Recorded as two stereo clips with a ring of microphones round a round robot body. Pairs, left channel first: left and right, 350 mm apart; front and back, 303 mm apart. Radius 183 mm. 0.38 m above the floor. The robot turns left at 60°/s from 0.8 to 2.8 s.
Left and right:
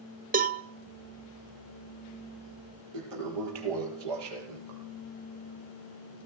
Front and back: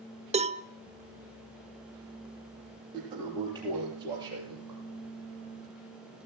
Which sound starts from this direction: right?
A toilet flushing, at 2.9 s.